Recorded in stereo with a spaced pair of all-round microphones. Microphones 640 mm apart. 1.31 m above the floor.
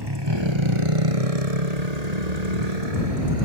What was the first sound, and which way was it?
A motorcycle, 35° right (ahead or behind).